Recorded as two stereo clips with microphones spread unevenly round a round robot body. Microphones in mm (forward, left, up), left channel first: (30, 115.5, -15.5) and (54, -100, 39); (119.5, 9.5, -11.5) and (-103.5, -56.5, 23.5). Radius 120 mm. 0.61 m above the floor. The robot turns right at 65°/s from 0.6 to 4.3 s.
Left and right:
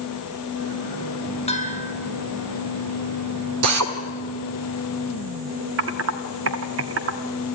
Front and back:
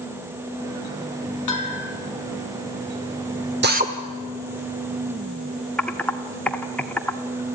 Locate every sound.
1.5 s a bell: 35° left, 3 m; by 1.9 s 65° left, 3 m
3.6 s a drill: 115° right, 1.8 m; by 3.9 s 95° right, 1.8 m
5.8 s typing on a keyboard: 60° right, 1.2 m